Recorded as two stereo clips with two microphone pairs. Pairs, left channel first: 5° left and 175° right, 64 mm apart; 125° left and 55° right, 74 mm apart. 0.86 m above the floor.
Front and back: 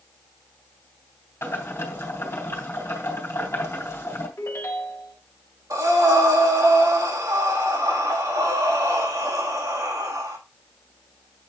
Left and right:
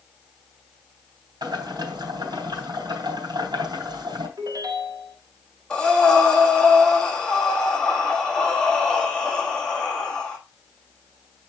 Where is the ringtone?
35° right, 1.5 m.